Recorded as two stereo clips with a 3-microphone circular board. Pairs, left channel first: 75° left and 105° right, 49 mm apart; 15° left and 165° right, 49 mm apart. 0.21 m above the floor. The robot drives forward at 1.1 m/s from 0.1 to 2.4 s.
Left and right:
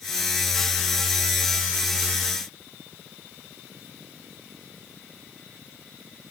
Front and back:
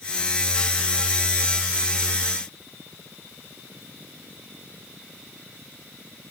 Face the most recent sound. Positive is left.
No sound to turn to.